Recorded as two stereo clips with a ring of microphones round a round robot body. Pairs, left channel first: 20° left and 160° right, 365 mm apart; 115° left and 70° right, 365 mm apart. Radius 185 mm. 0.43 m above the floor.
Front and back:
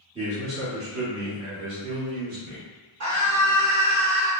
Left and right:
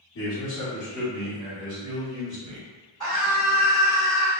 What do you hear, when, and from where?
0.1 s a man speaking: 135° left, 0.9 m; by 2.7 s 120° right, 1.7 m
3.0 s a scream: 170° right, 1.8 m